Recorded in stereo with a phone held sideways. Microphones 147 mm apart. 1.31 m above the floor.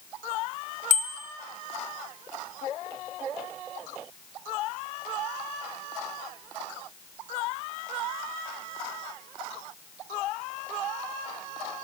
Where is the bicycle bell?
60° left (ahead or behind), 3 m.